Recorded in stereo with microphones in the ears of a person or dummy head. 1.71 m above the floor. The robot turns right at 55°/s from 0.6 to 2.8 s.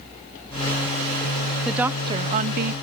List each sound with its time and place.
1.6 s a woman speaking: straight behind; by 2.7 s 125° right